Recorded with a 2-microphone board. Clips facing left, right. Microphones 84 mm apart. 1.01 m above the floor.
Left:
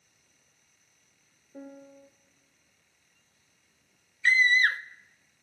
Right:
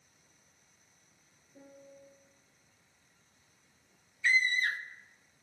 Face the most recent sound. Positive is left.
turn(degrees=65)  # may be behind; listen again after turning